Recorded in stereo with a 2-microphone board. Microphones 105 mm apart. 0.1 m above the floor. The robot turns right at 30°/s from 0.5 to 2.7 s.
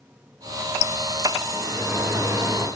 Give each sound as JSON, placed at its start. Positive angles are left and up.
{"t": 1.5, "sound": "a sliding door", "azimuth_deg": -175, "distance_m": 2.0}